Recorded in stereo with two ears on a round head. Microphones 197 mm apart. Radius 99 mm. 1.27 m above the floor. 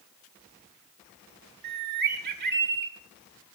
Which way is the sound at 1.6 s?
50° right (ahead or behind).